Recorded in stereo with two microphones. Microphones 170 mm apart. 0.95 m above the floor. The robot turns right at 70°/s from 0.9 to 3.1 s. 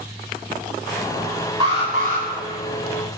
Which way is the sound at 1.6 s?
155° right.